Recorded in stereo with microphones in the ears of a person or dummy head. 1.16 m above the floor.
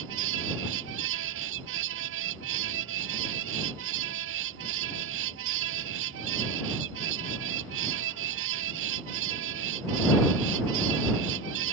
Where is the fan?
75° right (ahead or behind).